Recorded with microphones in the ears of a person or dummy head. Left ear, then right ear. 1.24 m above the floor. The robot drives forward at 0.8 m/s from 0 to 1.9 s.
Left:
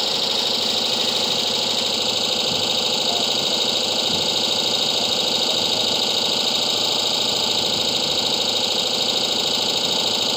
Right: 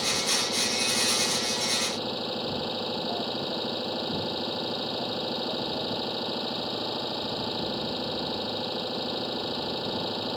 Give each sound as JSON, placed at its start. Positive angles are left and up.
{"t": 0.0, "sound": "an engine running", "side_deg": 65}